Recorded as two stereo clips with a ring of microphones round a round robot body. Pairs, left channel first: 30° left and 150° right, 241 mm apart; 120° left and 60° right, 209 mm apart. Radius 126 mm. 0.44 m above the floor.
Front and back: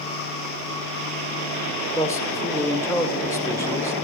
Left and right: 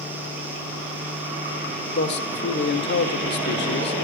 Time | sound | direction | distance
1.9 | a man speaking | 105° left | 1.1 m